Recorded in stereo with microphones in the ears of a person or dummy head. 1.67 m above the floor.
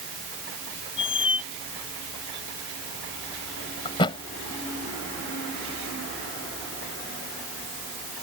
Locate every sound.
1.0 s a squeak: 25° left (ahead or behind)
3.9 s a thud: 25° left (ahead or behind)